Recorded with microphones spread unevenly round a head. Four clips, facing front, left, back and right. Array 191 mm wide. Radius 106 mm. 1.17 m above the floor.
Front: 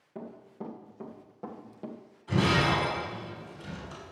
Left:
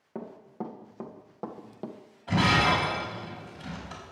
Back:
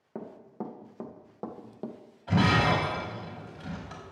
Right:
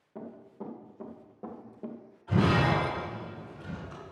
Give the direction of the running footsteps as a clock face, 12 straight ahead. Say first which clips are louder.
Left 4 dB, back 2 dB; 7 o'clock.